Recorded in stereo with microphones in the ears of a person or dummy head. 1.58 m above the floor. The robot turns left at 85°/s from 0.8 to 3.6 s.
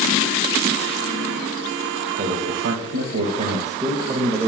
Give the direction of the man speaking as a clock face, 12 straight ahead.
1 o'clock.